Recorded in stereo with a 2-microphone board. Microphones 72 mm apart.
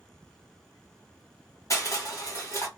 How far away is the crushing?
About 1.4 m.